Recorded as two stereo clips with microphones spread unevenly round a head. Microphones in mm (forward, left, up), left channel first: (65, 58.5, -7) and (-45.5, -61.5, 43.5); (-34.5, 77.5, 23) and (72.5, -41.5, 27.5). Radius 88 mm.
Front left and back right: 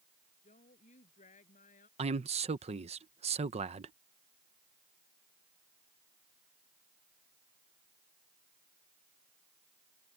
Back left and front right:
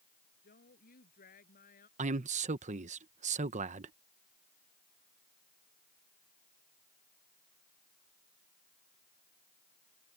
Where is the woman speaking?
100° left; by 1.9 s 95° left.